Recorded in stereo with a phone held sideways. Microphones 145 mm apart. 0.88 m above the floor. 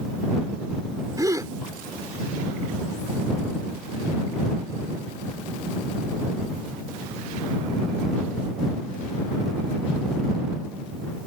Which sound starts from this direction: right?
A gasp, at 1.2 s.